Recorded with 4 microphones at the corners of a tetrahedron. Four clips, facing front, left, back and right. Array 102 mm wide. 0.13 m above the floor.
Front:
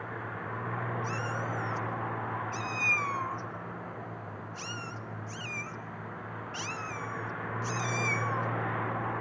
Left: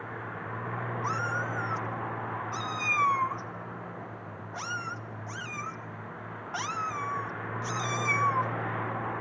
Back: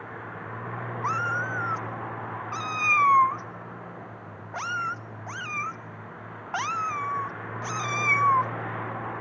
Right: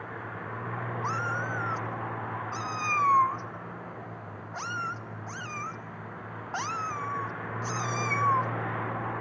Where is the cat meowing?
165° right, 0.9 m.